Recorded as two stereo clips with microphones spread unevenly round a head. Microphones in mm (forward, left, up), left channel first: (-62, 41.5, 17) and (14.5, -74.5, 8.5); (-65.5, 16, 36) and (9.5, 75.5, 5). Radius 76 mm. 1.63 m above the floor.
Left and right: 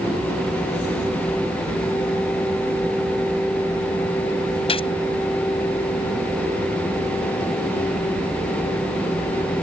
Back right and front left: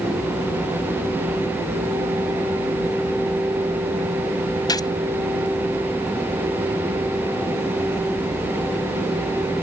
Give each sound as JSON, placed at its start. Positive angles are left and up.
{"t": 4.7, "sound": "a gunshot", "azimuth_deg": 175}